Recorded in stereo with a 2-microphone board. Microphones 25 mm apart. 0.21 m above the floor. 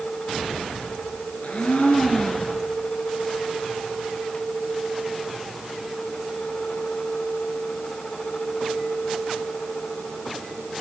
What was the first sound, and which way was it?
A blender, 65° left (ahead or behind).